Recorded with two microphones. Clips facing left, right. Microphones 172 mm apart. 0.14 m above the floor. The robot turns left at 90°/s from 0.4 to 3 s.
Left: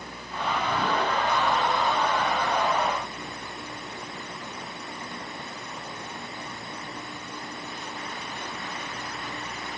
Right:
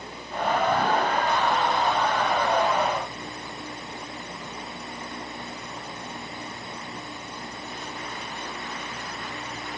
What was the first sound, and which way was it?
Only background noise.